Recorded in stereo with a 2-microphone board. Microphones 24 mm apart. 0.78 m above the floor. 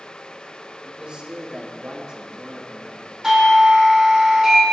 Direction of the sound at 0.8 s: 40° right (ahead or behind).